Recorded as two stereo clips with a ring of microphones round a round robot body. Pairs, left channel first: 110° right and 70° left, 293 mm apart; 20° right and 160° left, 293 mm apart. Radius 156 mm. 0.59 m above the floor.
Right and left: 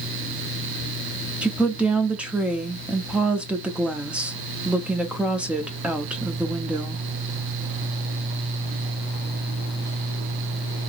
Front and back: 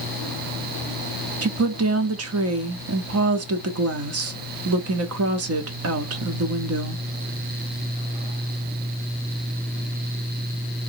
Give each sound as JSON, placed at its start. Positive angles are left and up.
{"t": 1.4, "sound": "a woman speaking", "azimuth_deg": 150, "distance_m": 1.1}